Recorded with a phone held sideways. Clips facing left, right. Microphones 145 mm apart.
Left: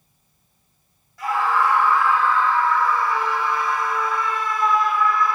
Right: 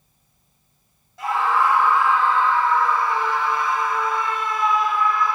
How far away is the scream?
About 2.5 m.